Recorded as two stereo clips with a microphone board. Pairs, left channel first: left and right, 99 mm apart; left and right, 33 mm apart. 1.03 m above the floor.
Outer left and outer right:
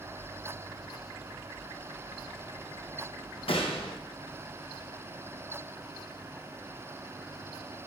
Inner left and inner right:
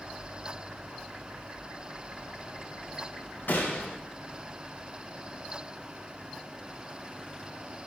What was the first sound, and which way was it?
A gunshot, 75° left (ahead or behind).